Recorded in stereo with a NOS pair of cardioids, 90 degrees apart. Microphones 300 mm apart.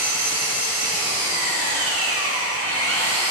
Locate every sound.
0.0 s an engine running: 55° right, 2.5 m